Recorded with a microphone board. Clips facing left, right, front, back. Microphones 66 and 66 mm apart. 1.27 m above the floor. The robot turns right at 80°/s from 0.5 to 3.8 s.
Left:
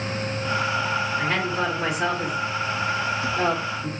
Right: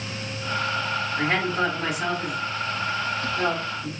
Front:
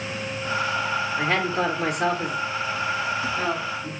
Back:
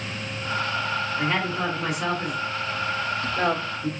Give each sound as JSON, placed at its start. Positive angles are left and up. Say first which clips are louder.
{"t": 1.2, "sound": "a woman speaking", "louder": "right 1 dB, front 3 dB", "azimuth_deg": -45, "distance_m": 3.0}